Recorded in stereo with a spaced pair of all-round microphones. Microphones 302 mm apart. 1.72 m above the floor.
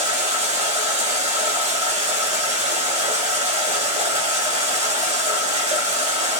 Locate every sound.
0.0 s running water: 20° right (ahead or behind), 1.6 m